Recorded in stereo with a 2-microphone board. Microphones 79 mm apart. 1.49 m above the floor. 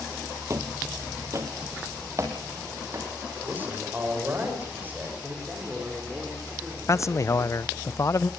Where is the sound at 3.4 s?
25° right (ahead or behind), 6 m.